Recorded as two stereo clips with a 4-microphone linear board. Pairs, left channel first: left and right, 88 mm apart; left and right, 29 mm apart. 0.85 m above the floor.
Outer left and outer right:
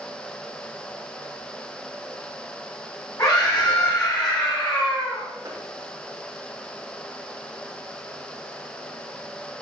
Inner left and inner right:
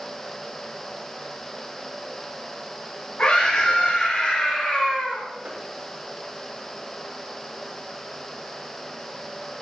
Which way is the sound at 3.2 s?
45° left (ahead or behind).